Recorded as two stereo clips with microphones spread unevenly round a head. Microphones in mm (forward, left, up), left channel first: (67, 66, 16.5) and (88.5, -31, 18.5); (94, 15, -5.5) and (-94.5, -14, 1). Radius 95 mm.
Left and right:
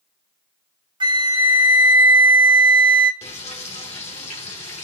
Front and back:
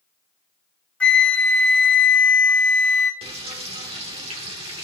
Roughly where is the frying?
Behind left.